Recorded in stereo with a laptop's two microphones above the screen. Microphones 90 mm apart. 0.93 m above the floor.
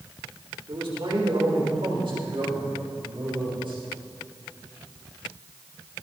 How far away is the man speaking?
About 3.5 m.